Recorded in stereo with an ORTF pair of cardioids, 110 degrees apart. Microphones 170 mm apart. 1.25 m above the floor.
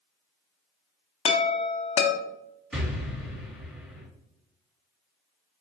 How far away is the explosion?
About 1.7 m.